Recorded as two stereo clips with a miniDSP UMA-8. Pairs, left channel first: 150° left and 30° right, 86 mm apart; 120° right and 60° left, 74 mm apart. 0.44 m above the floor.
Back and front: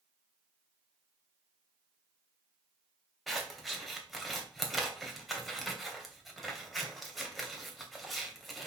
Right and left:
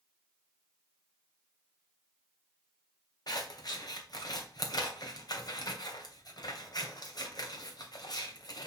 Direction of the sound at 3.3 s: 120° right.